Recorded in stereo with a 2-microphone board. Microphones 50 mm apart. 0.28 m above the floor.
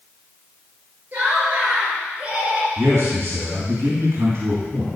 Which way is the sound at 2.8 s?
60° right (ahead or behind).